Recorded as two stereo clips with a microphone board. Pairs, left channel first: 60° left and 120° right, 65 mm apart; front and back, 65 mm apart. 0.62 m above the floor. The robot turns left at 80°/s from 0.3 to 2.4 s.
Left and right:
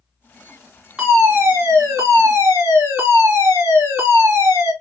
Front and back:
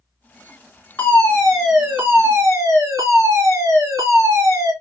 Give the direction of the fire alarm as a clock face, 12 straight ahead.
1 o'clock.